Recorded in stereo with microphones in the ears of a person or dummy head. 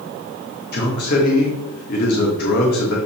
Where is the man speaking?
55° left (ahead or behind), 1.8 m.